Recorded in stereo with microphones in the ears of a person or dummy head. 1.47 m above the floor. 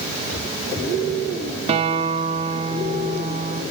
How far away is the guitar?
About 1.2 m.